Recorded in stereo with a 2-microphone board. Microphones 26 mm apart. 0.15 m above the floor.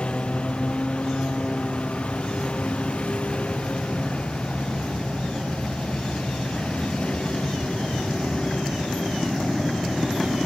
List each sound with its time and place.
0.0 s a lawn mower: 45° left (ahead or behind); by 10.5 s 55° left (ahead or behind)